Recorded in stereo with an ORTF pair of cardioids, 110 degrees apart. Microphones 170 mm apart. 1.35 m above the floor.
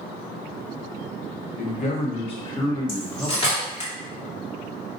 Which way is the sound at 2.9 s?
30° left.